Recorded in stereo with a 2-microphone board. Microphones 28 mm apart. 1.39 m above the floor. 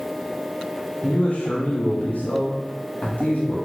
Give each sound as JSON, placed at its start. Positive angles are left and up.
{"t": 1.0, "sound": "a man speaking", "side_deg": 60, "distance_m": 0.5}